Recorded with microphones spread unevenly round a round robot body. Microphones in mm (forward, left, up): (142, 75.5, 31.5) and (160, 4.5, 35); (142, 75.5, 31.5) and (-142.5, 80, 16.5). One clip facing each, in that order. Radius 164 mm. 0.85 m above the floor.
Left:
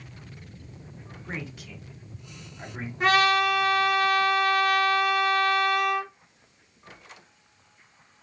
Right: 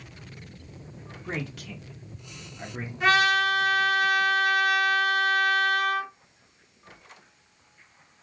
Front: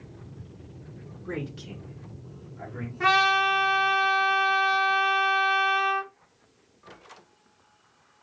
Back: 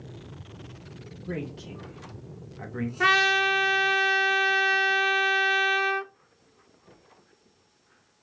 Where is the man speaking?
75° right, 1.2 m; by 2.9 s 145° right, 0.9 m.